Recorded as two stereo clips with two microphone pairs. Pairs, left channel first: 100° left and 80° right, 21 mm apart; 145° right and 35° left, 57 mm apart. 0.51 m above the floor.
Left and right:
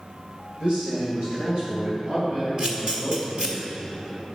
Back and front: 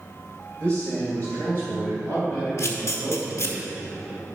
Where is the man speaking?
85° right, 2 m; by 3.6 s 95° right, 4.5 m.